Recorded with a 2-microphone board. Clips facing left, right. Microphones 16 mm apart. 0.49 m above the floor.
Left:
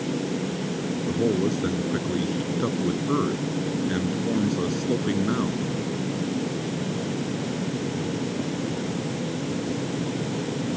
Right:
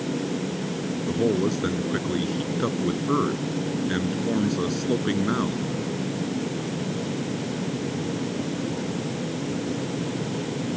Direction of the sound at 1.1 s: 15° right (ahead or behind).